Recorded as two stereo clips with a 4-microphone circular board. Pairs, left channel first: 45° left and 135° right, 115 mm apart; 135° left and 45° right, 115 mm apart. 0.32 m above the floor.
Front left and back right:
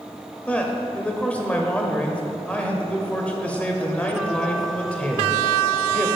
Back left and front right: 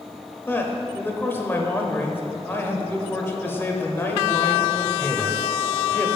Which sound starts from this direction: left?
A man speaking, at 0.5 s.